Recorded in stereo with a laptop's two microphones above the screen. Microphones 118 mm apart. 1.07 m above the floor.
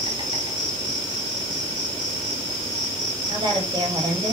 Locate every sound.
0.0 s an insect: 45° right (ahead or behind), 3 m
3.3 s a woman speaking: 40° right (ahead or behind), 3.5 m